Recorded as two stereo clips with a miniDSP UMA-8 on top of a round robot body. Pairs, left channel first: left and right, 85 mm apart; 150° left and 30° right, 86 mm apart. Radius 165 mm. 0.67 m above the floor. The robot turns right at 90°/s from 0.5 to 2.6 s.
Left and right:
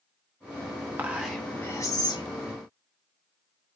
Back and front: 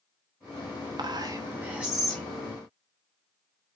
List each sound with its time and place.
1.0 s whispering: 30° right, 0.8 m; by 2.2 s 80° left, 0.8 m